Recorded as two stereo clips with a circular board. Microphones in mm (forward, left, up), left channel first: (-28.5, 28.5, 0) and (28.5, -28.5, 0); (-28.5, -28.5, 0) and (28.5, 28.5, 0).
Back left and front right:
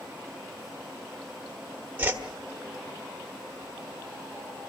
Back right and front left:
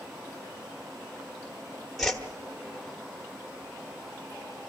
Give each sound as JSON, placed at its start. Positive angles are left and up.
{"t": 2.0, "sound": "a whoosh", "azimuth_deg": -55, "distance_m": 1.4}